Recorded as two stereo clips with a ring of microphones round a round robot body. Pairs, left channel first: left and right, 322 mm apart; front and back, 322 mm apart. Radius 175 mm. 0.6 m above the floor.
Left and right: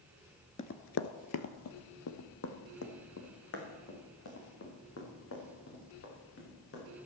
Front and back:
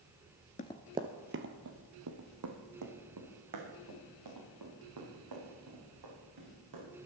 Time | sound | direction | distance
0.6 | running footsteps | 40° left | 0.6 m